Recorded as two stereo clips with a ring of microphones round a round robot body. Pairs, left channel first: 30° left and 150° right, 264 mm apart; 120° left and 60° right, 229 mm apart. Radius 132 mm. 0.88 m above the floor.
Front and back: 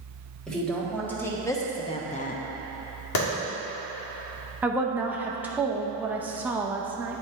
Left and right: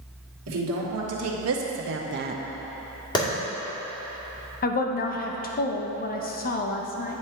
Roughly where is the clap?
Ahead left.